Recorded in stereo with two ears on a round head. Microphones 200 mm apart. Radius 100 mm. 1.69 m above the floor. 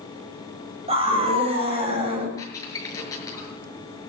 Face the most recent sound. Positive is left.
turn(degrees=15)  # may be behind; listen again after turning